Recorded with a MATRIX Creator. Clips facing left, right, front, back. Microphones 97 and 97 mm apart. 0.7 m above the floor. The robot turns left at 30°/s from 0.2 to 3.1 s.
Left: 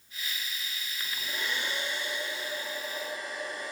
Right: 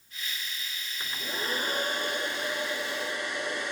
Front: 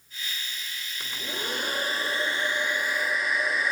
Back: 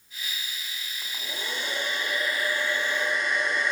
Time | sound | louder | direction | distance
1.0 | a hair dryer | right 2 dB, front 3 dB | 25° right | 2.5 m